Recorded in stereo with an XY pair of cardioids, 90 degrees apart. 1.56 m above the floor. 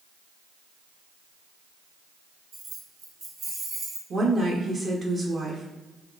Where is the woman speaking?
50° right, 0.8 m.